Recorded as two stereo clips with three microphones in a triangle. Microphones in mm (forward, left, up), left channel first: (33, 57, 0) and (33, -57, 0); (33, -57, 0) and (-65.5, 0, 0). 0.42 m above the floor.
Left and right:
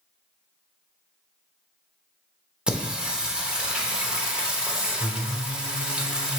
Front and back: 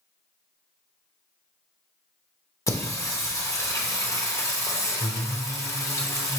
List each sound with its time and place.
2.7 s singing: 20° right, 0.8 m